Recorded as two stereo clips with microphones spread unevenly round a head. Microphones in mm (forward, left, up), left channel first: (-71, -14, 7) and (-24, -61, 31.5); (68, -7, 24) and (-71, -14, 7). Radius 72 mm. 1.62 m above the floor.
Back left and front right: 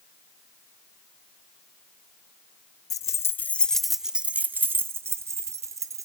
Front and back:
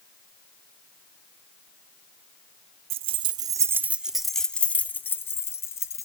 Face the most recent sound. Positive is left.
turn(degrees=-65)